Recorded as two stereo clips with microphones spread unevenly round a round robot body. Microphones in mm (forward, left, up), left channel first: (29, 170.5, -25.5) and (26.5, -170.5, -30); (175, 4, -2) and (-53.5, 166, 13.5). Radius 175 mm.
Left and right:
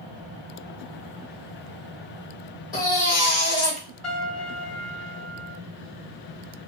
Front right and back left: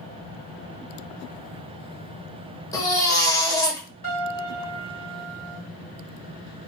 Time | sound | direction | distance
2.7 | a baby crying | 35° left | 1.0 m
4.0 | a piano | straight ahead | 1.7 m